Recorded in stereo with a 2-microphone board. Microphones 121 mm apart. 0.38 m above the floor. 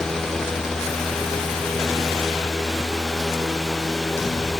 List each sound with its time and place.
Only background noise.